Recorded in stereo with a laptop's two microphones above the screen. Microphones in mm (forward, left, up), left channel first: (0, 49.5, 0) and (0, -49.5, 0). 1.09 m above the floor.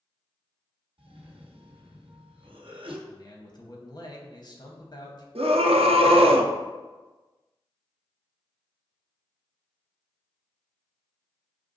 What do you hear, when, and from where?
1.0 s a cough: 65° right (ahead or behind), 0.9 m
3.1 s a man speaking: 45° left (ahead or behind), 0.9 m
5.3 s a scream: 80° right, 0.5 m